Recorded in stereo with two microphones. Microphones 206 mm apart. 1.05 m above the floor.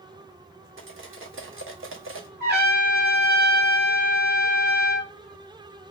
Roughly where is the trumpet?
Right.